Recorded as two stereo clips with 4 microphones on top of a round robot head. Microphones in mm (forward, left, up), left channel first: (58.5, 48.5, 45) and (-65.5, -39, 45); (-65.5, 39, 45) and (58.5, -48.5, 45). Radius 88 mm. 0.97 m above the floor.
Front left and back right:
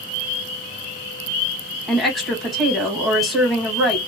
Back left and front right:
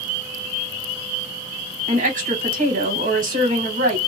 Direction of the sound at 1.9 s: 55° right.